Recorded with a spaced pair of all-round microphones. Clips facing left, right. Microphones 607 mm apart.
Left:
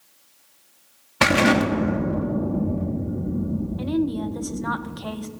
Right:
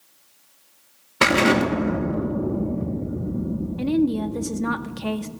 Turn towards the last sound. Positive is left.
turn(degrees=-55)  # may be behind; listen again after turning